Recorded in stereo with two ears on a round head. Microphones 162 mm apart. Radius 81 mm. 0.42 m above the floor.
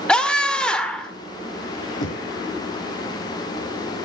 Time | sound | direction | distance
0.1 | a scream | 5° left (ahead or behind) | 1.6 m
2.0 | knocking | 75° left (ahead or behind) | 7 m